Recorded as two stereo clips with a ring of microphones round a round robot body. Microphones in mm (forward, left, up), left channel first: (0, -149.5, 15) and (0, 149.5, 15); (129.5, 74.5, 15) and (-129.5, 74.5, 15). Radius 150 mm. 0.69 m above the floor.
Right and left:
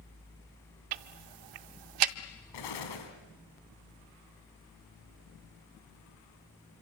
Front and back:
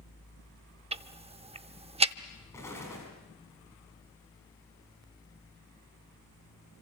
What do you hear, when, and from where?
0.9 s ticking: 110° left, 0.7 m
2.5 s an explosion: 80° right, 3 m